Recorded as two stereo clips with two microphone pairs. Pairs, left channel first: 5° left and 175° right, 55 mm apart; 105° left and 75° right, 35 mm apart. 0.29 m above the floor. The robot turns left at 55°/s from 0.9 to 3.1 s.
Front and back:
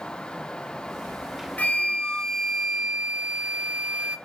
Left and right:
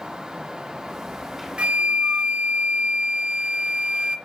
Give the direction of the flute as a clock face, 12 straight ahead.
1 o'clock.